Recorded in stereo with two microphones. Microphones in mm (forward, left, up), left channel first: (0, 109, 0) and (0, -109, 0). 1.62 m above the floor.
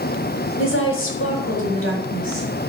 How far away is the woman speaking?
About 5 m.